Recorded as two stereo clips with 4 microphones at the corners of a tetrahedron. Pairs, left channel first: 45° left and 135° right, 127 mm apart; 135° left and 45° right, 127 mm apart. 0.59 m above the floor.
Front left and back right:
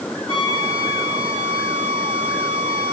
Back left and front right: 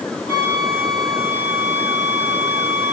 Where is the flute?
100° left, 5 m.